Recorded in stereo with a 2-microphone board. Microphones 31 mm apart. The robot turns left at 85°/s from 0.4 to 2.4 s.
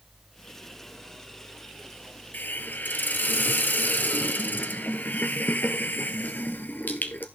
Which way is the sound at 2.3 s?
70° left (ahead or behind).